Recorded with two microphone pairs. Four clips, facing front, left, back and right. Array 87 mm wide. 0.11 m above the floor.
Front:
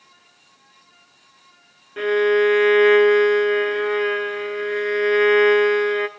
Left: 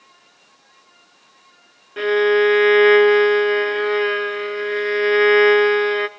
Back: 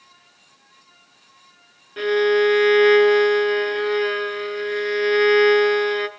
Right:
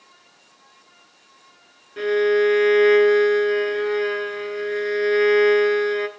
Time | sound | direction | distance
2.0 | a violin | 75° left | 0.7 m